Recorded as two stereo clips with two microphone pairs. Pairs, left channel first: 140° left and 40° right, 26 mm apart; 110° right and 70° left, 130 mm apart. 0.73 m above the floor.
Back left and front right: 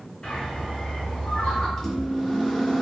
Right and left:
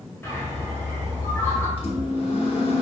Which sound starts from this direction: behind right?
A microwave, at 1.8 s.